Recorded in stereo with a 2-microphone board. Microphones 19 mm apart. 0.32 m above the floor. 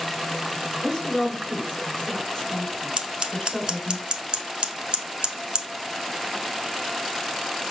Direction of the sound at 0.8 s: 25° left (ahead or behind).